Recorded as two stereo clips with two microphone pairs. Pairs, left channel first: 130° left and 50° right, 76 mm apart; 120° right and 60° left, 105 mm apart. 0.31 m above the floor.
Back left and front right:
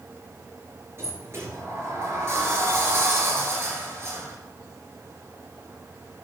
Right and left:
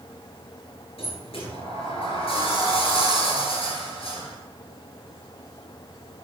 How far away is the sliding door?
About 2.5 m.